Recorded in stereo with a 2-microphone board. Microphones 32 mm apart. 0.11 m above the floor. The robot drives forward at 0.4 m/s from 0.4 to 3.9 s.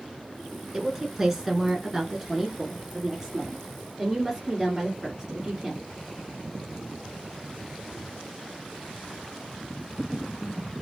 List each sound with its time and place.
0.7 s a woman speaking: 15° right (ahead or behind), 1.4 m; by 5.8 s 10° right (ahead or behind), 1.7 m